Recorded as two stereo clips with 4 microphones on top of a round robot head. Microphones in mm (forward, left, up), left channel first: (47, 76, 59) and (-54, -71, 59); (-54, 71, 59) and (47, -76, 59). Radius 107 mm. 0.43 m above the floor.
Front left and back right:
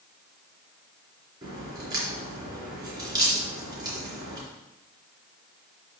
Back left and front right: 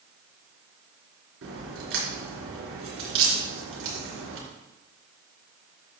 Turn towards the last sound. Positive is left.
turn(degrees=-55)